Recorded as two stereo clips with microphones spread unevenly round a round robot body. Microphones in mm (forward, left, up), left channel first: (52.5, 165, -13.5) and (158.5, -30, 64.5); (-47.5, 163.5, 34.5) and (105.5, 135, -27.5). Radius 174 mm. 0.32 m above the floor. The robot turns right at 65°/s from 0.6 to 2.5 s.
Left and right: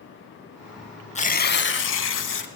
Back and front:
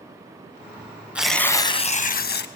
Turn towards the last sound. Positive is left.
turn(degrees=155)